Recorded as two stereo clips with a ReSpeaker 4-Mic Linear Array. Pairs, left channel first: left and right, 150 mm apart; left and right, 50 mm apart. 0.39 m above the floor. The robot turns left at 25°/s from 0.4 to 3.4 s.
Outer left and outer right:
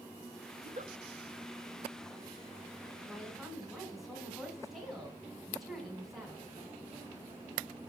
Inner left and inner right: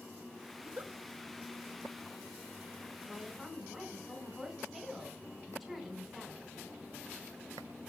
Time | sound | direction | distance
0.6 | a giggle | 55° right (ahead or behind) | 0.7 m
3.1 | a woman speaking | 10° right (ahead or behind) | 3 m